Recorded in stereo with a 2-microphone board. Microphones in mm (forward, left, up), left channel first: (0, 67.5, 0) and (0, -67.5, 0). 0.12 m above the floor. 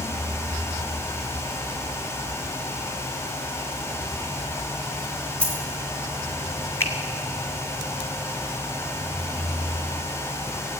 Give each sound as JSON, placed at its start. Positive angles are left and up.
{"t": 5.4, "sound": "a dropped coin", "side_deg": 10, "distance_m": 4.0}
{"t": 6.8, "sound": "a finger snap", "side_deg": 20, "distance_m": 1.6}